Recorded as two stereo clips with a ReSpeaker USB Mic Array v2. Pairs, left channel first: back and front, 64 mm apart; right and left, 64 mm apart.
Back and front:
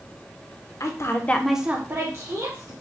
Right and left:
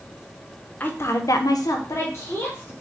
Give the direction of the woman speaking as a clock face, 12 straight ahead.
5 o'clock.